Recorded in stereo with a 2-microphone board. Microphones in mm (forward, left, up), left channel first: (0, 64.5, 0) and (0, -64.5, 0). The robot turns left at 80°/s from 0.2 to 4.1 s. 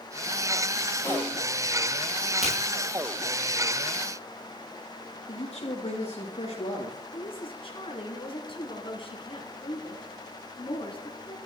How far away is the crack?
About 7 m.